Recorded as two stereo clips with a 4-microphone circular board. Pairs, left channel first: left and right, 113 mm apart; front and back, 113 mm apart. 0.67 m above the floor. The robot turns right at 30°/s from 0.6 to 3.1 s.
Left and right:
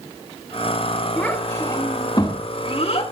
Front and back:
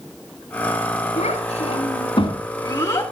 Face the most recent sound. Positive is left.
turn(degrees=60)